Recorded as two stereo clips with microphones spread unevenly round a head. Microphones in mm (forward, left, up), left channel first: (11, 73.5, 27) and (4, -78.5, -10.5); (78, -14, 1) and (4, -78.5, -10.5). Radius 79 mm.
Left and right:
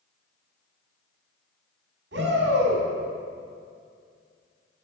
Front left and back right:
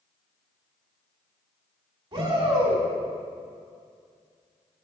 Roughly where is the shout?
Right.